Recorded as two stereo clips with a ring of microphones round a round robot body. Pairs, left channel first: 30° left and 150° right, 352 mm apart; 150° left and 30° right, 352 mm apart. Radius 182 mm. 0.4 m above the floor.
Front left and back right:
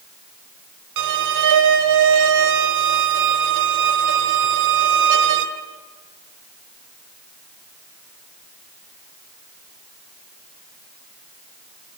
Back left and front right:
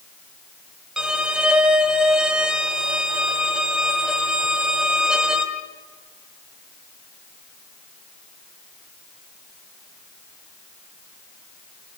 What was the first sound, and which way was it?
A violin, 115° right.